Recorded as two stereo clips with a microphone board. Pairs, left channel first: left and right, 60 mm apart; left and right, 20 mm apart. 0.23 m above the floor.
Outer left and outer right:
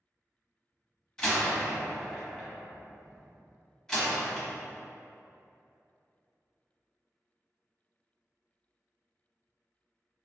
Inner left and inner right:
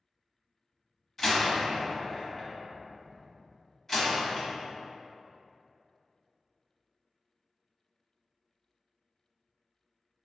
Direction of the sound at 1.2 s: 10° left (ahead or behind).